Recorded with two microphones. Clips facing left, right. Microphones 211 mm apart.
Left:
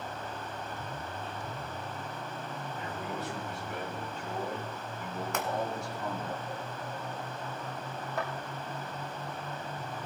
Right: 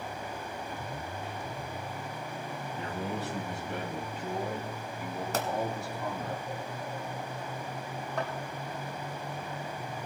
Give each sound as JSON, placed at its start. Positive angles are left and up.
{"t": 2.8, "sound": "a man speaking", "side_deg": -40, "distance_m": 2.0}
{"t": 5.3, "sound": "a pop", "side_deg": -35, "distance_m": 1.3}
{"t": 8.2, "sound": "a thud", "side_deg": 5, "distance_m": 3.5}